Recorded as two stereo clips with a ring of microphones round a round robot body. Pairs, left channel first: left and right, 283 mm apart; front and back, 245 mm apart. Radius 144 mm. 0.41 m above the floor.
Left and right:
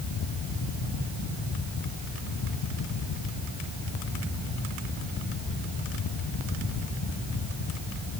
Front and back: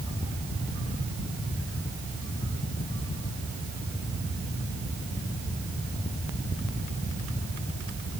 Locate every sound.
Only background noise.